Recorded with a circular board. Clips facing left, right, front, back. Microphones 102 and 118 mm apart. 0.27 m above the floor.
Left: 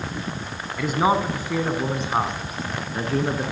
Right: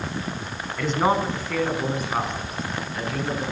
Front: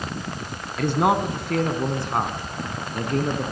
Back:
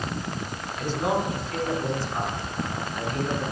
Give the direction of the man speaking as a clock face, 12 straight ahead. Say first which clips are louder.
Left 1 dB, front 5 dB; 12 o'clock.